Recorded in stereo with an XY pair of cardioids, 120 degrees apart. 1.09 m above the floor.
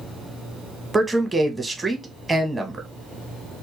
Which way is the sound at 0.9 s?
10° right.